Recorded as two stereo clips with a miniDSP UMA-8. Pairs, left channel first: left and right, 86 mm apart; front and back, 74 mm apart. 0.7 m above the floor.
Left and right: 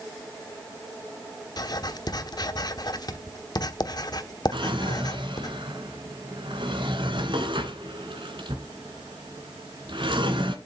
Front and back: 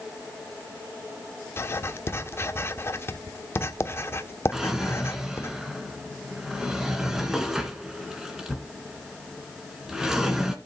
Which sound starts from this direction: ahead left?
Writing, at 1.6 s.